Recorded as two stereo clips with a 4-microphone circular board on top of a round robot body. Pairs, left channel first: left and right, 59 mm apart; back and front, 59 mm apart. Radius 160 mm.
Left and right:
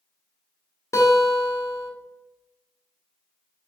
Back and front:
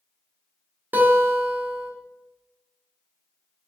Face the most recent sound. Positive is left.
turn(degrees=55)